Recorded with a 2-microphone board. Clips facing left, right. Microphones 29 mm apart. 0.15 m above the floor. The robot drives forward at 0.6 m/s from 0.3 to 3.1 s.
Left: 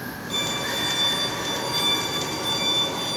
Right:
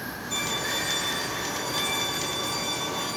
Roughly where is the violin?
Left.